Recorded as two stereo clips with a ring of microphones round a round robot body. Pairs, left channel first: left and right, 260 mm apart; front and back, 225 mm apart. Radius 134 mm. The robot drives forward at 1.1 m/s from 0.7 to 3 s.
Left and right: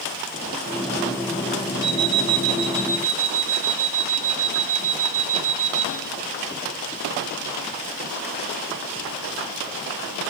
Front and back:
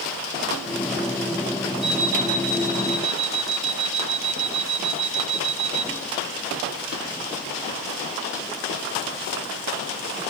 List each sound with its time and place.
1.8 s an alarm clock: 110° right, 2.5 m; by 5.9 s 130° right, 3.5 m